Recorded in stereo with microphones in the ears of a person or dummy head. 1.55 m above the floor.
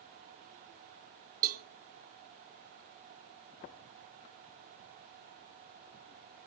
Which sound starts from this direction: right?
A cowbell, at 1.4 s.